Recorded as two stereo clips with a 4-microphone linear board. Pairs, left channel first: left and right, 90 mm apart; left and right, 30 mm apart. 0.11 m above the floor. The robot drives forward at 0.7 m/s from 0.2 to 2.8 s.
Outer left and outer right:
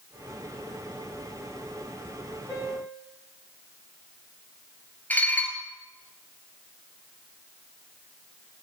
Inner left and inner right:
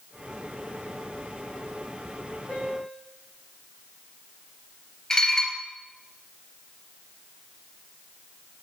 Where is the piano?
20° left (ahead or behind), 4.5 m.